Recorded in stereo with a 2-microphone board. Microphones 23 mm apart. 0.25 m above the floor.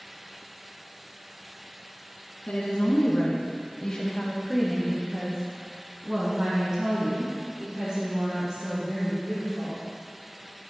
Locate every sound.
2.5 s a woman speaking: 65° left (ahead or behind), 2.5 m; by 9.8 s 55° right (ahead or behind), 6.5 m